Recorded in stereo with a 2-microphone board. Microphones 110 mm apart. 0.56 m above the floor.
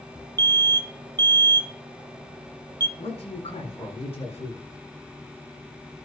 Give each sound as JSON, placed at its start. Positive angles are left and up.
{"t": 0.4, "sound": "an alarm", "side_deg": -35, "distance_m": 0.6}
{"t": 3.0, "sound": "a man speaking", "side_deg": 70, "distance_m": 6.5}